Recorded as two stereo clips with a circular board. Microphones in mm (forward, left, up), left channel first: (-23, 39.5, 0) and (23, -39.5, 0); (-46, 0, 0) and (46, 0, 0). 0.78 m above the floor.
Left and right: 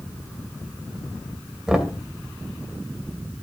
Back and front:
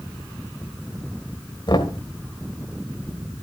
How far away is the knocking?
About 2 m.